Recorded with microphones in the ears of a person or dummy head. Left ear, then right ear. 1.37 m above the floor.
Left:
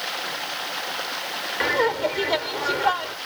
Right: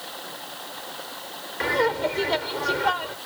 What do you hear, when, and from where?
0.0 s running water: 65° left (ahead or behind)
1.6 s laughter: 15° left (ahead or behind)